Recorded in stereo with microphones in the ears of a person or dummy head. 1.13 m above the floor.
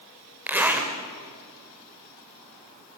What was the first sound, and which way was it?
A zipper, 5° right (ahead or behind).